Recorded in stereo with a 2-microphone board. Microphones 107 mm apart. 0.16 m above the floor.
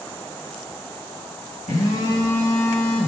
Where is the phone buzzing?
85° left, 5 m.